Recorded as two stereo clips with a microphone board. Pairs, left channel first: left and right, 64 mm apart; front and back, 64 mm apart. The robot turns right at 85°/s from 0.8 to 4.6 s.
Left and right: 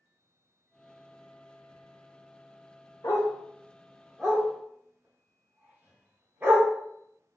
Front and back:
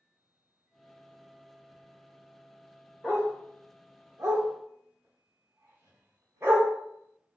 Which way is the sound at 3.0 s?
80° left.